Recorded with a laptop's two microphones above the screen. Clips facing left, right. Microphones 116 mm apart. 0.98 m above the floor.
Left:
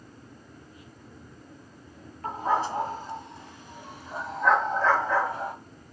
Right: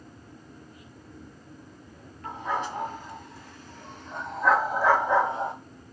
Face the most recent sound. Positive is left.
turn(degrees=-30)  # may be behind; listen again after turning